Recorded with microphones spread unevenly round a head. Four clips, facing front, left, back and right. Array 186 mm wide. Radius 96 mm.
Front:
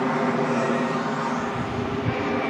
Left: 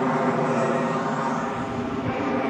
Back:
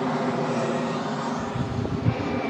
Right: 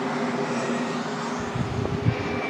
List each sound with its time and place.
0.0 s an aircraft: 60° left
1.4 s footsteps: 135° right